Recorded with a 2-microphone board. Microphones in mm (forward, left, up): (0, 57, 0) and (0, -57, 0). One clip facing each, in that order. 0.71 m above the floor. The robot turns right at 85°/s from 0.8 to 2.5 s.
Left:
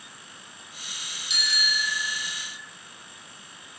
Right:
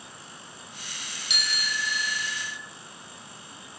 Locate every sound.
1.3 s a bicycle bell: 70° right, 2.5 m; by 2.6 s 30° left, 2.5 m